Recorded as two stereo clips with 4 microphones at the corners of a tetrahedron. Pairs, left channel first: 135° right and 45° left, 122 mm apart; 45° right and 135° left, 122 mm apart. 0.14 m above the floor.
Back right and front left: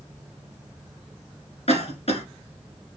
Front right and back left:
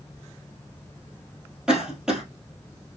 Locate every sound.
1.7 s a cough: 140° right, 2.0 m